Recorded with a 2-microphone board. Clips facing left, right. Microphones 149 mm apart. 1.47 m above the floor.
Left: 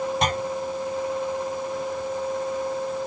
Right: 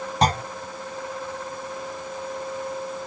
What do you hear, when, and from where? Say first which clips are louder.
0.2 s a clunk: right 8 dB; 35° right (ahead or behind)